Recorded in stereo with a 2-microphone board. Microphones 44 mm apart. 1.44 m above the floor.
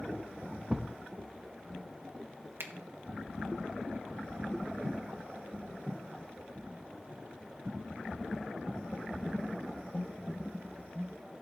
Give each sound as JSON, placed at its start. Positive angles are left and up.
{"t": 0.7, "sound": "a thud", "side_deg": -10, "distance_m": 0.7}
{"t": 2.6, "sound": "a finger snap", "side_deg": -60, "distance_m": 0.9}